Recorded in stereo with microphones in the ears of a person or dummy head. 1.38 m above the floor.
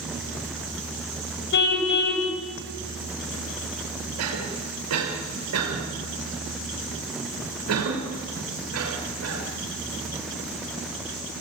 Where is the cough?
90° right, 5.5 m.